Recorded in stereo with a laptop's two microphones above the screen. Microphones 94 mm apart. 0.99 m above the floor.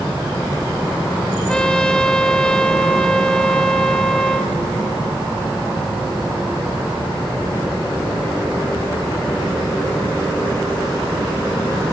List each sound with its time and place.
1.5 s a trumpet: 10° left (ahead or behind), 2 m